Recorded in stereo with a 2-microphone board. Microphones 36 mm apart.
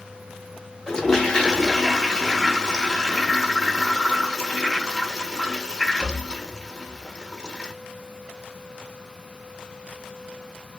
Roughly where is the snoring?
No snoring in this recording.